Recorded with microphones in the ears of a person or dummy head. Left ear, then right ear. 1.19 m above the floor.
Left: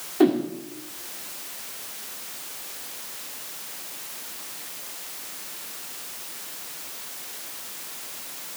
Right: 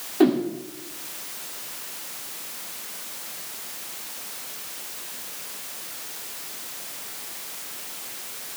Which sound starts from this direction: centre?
A whoosh, at 0.2 s.